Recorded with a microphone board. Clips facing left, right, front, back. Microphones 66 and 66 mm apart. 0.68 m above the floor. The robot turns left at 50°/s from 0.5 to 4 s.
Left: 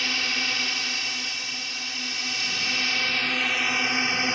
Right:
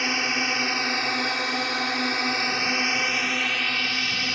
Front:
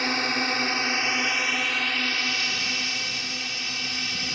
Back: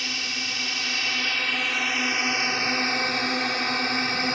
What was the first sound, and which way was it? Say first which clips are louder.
A drone: right 3 dB, front 6 dB; 30° right.